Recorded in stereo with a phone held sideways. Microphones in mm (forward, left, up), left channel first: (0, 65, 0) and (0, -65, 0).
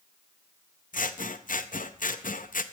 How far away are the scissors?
About 0.5 m.